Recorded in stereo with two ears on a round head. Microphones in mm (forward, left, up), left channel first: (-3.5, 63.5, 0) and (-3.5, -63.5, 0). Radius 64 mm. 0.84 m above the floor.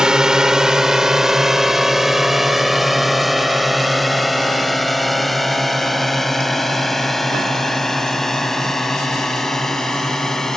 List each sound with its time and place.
0.0 s a drone: 5° right (ahead or behind); by 10.6 s 5° left (ahead or behind)